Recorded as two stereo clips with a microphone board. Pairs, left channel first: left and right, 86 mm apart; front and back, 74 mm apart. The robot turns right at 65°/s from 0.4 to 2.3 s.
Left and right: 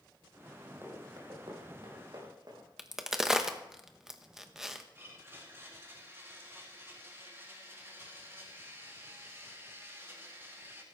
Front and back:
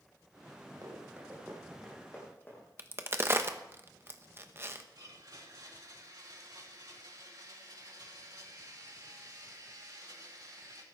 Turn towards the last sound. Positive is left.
turn(degrees=-150)